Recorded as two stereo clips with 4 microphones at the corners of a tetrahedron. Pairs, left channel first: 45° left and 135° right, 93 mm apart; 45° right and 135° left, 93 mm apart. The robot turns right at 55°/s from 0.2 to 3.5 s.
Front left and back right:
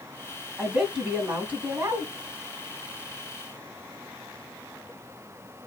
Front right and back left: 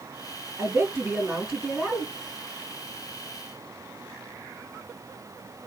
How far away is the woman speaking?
About 1.4 m.